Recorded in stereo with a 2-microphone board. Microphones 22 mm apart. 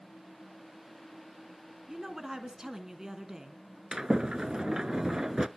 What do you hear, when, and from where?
1.9 s a woman speaking: 25° right (ahead or behind), 1.4 m
3.9 s a sliding door: 40° right (ahead or behind), 0.6 m